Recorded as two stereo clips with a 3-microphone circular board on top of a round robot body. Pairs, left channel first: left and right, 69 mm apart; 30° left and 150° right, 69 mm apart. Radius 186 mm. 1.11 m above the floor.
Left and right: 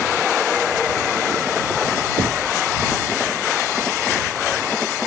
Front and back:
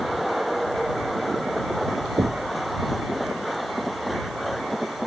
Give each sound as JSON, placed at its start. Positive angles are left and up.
{"t": 2.2, "sound": "knocking", "azimuth_deg": -105}